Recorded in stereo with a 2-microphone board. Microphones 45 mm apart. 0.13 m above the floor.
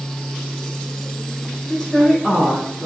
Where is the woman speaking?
15° left (ahead or behind), 1.7 m; by 2.9 s 15° right (ahead or behind), 1.6 m.